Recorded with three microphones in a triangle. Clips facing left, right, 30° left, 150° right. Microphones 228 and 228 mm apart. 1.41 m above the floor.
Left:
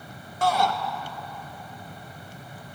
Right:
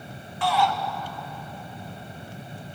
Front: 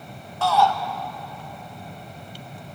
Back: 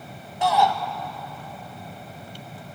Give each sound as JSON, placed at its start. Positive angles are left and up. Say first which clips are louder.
{"t": 0.4, "sound": "a shout", "louder": "even, front 1 dB", "azimuth_deg": 135, "distance_m": 1.7}